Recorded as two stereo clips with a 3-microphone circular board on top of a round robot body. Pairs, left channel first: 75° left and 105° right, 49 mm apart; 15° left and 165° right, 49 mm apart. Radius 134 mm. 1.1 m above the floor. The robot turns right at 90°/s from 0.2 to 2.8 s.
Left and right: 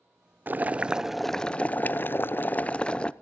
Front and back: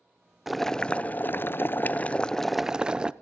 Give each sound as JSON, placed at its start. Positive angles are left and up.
{"t": 0.5, "sound": "boiling", "azimuth_deg": -80, "distance_m": 0.8}